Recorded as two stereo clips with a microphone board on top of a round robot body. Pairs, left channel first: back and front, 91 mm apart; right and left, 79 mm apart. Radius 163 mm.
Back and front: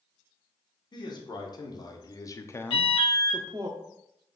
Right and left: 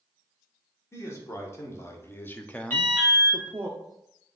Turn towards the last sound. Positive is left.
turn(degrees=-155)